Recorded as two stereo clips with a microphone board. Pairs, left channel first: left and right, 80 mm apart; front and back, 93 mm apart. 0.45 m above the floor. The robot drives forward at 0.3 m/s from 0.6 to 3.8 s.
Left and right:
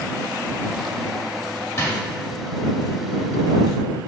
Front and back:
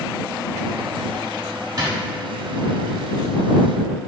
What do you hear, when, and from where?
1.8 s a drawer: 140° left, 1.0 m; by 2.0 s 145° left, 1.0 m